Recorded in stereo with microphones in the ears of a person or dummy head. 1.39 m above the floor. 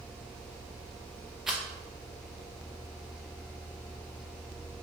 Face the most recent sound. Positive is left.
turn(degrees=0)  # may be behind; listen again after turning